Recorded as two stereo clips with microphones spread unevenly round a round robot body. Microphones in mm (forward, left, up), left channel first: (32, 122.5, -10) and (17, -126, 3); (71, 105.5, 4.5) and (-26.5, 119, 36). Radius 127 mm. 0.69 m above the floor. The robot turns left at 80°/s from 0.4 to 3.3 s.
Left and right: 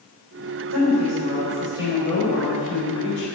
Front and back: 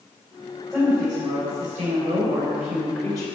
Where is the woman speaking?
85° right, 3.5 m; by 3.3 s 70° left, 3.5 m.